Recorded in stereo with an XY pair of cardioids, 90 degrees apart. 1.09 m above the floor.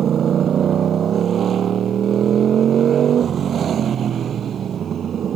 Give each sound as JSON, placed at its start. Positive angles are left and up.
{"t": 0.0, "sound": "a motorcycle", "azimuth_deg": -65}